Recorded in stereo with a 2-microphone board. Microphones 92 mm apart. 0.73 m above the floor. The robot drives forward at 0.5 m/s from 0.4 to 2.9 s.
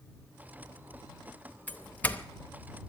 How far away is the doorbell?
About 0.9 m.